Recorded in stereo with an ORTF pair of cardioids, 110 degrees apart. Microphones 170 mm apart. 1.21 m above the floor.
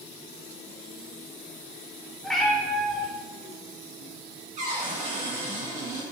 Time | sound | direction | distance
2.2 | a cat meowing | 5° left | 1.8 m
4.6 | a cupboard door | 45° right | 3.5 m